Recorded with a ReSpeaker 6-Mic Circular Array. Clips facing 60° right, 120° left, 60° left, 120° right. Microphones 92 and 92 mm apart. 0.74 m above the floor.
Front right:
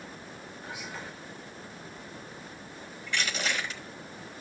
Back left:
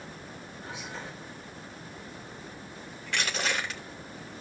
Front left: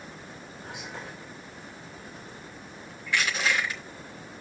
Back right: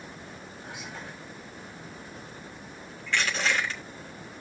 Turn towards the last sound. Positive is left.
turn(degrees=140)